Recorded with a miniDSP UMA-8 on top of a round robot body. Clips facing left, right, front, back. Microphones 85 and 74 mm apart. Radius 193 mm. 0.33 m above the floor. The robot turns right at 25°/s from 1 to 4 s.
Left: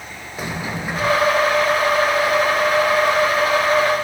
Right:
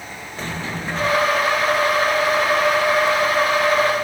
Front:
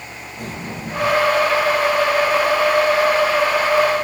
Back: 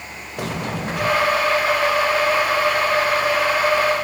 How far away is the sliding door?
About 1.3 m.